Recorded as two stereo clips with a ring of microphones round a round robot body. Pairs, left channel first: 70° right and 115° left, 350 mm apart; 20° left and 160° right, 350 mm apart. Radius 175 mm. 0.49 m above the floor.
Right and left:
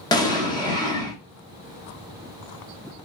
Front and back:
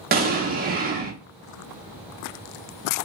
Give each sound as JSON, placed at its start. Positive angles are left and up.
{"t": 0.1, "sound": "an explosion", "azimuth_deg": -135, "distance_m": 0.6}